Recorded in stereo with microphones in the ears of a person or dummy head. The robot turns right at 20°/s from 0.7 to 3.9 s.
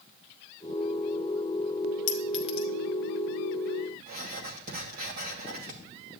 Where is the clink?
45° left (ahead or behind), 0.6 m; by 2.7 s 35° left (ahead or behind), 0.6 m.